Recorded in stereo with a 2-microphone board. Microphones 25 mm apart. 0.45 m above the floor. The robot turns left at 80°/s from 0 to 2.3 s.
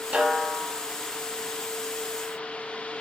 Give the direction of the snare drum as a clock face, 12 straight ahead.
4 o'clock.